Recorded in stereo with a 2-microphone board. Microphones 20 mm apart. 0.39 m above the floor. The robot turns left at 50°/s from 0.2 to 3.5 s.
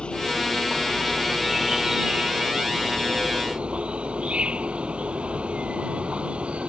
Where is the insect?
55° left; by 6.7 s 110° right.